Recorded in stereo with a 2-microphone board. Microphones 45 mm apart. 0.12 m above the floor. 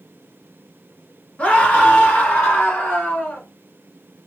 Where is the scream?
30° left (ahead or behind), 1.4 m; by 3.4 s 35° left (ahead or behind), 1.9 m.